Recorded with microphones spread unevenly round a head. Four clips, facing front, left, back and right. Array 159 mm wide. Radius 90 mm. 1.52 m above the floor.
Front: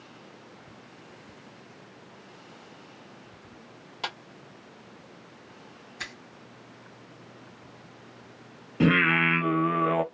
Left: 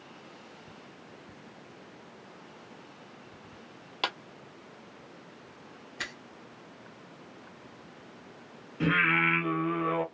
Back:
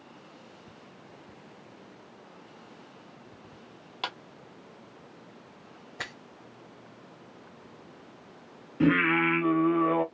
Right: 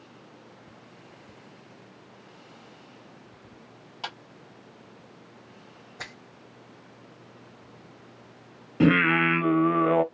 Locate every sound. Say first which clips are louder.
4.0 s a clap: left 4 dB, even; 95° left, 1.3 m
6.0 s a finger snap: left 1 dB, back 2 dB; 160° right, 1.2 m
8.8 s singing: right 7 dB, front 1 dB; 85° right, 0.5 m